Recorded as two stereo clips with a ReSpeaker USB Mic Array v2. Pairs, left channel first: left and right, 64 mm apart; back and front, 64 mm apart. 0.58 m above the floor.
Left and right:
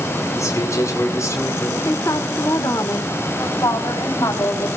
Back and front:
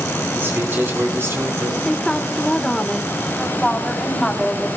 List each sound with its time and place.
0.3 s a man speaking: 55° left, 5 m; by 1.8 s 50° left, 5 m
1.9 s a woman speaking: 105° left, 1.7 m
3.4 s a woman speaking: 95° left, 4 m